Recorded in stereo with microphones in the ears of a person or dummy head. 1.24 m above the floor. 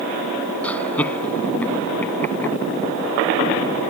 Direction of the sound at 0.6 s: 5° left (ahead or behind).